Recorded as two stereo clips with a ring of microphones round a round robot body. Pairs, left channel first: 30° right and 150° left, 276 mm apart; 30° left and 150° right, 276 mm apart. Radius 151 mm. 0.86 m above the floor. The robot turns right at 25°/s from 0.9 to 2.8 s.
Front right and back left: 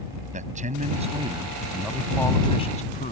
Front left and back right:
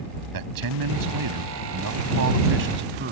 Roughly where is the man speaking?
Behind right.